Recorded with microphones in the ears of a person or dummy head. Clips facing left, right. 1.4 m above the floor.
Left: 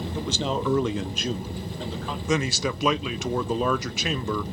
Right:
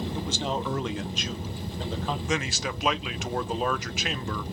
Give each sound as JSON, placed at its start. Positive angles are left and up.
{"t": 0.1, "sound": "a man speaking", "side_deg": 50, "distance_m": 1.0}
{"t": 2.3, "sound": "a man speaking", "side_deg": 70, "distance_m": 0.5}